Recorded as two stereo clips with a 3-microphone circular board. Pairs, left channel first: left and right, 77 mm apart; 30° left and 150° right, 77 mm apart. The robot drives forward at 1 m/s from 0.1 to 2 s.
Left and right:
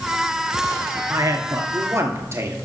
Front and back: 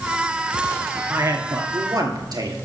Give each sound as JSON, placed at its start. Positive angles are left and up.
{"t": 1.1, "sound": "a man speaking", "azimuth_deg": -110, "distance_m": 1.7}